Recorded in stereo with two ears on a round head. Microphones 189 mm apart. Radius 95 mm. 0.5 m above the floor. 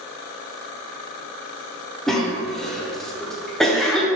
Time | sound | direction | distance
2.1 | a cough | centre (ahead or behind) | 1.3 m